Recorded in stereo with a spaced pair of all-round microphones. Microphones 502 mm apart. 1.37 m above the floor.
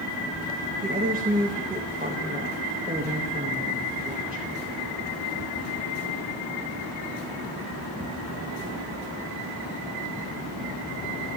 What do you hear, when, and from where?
0.8 s a woman speaking: 20° right (ahead or behind), 1.8 m